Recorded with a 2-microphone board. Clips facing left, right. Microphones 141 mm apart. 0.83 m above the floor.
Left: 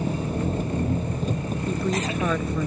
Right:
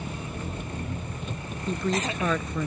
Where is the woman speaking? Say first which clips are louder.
Even; 5° left (ahead or behind).